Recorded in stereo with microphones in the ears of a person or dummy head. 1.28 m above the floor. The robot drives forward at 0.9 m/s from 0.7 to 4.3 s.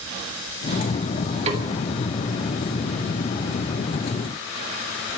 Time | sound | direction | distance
1.5 | a snare drum | 40° right (ahead or behind) | 2.0 m